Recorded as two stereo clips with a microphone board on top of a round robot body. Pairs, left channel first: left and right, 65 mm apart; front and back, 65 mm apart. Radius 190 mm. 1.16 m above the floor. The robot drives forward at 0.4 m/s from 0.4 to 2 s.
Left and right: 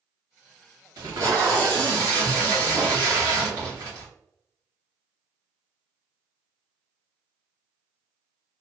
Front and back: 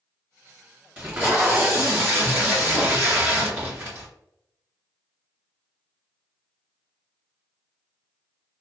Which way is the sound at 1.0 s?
115° right.